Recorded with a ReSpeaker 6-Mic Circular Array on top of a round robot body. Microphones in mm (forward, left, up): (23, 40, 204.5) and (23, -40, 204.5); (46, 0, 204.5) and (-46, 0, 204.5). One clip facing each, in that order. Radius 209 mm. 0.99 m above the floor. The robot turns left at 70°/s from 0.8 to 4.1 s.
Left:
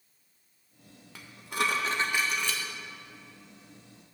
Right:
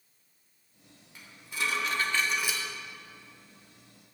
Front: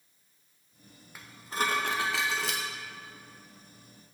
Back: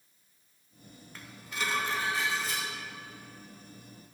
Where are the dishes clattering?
80° left, 0.6 m; by 2.6 s 20° right, 0.6 m.